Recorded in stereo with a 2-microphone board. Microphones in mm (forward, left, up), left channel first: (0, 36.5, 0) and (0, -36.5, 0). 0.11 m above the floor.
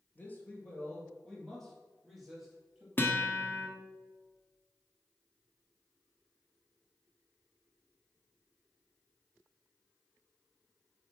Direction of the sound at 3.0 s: 30° left (ahead or behind).